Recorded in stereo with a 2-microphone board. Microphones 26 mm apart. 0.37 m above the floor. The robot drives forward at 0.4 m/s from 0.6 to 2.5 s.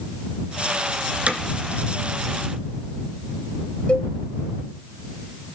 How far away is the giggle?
I don't hear a giggle.